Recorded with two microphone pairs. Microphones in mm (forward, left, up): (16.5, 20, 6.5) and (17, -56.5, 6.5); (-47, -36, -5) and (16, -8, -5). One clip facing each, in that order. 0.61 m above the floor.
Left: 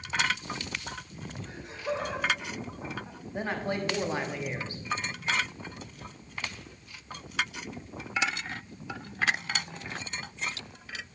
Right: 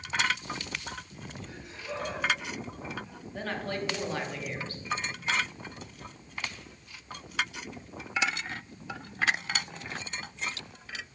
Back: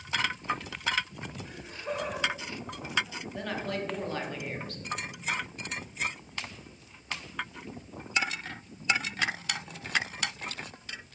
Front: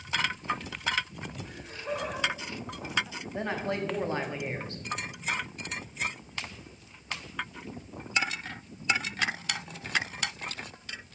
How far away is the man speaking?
About 1.1 m.